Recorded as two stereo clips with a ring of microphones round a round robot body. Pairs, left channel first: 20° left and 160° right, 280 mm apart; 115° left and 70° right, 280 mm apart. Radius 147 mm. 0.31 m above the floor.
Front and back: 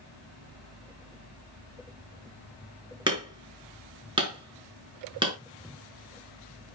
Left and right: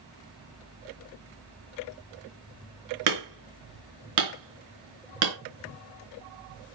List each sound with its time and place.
3.1 s hammering: 80° right, 4.5 m